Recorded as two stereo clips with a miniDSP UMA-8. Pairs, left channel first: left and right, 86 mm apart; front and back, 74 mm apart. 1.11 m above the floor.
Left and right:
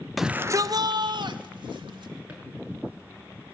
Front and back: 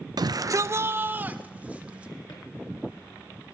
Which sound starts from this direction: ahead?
A drawer, at 2.3 s.